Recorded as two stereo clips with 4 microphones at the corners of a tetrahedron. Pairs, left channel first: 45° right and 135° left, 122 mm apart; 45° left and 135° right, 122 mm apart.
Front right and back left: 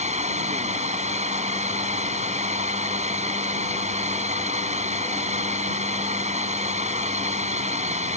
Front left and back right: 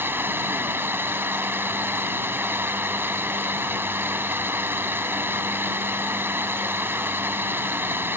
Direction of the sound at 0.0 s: 155° left.